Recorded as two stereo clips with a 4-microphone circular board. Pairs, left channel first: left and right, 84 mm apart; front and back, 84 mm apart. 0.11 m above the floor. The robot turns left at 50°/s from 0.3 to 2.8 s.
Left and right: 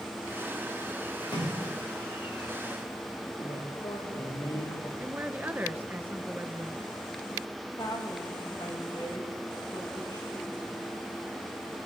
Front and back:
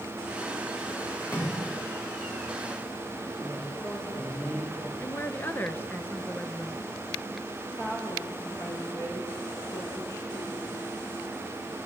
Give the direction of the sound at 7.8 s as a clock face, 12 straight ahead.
10 o'clock.